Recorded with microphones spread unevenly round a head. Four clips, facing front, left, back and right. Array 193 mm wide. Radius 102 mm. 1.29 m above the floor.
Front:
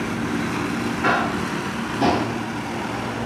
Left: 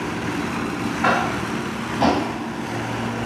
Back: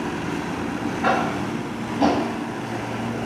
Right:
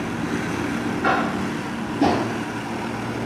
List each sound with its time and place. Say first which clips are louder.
1.0 s tapping: left 1 dB, even; 110° left, 1.3 m